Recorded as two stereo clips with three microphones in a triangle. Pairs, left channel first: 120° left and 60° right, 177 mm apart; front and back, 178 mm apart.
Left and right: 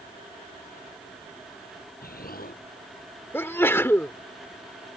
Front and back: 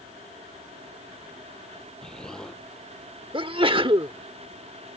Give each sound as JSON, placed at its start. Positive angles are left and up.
{"t": 2.0, "sound": "an explosion", "azimuth_deg": 85}
{"t": 3.3, "sound": "a sneeze", "azimuth_deg": 180}